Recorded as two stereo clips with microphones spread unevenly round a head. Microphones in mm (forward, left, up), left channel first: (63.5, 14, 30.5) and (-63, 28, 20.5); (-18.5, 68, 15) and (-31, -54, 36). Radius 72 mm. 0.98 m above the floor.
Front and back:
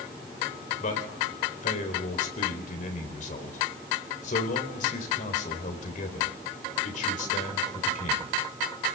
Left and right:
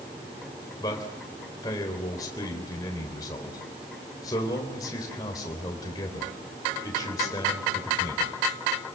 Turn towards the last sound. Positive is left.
turn(degrees=20)